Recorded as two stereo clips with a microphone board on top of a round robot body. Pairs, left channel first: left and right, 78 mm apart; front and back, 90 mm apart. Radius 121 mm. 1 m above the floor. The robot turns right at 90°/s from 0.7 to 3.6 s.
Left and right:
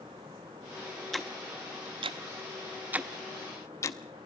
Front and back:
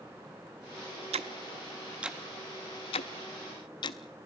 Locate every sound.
1.1 s ticking: 175° left, 0.6 m; by 4.0 s 40° left, 0.6 m